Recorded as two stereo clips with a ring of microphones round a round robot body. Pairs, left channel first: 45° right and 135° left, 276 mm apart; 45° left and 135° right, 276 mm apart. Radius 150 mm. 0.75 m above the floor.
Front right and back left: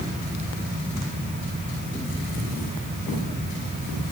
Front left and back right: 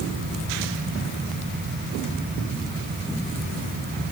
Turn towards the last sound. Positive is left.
No sound to turn to.